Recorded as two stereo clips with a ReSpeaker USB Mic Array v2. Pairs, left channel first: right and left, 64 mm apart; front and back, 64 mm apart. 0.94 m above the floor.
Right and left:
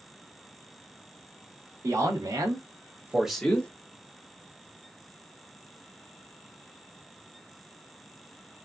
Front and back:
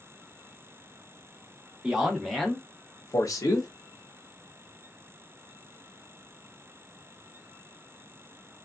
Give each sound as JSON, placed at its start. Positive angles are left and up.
{"t": 1.8, "sound": "a man speaking", "azimuth_deg": 100, "distance_m": 1.6}